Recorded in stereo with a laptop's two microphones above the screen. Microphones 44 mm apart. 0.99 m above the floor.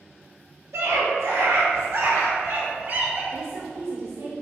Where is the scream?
85° right, 2.5 m; by 3.2 s 45° right (ahead or behind), 2.5 m.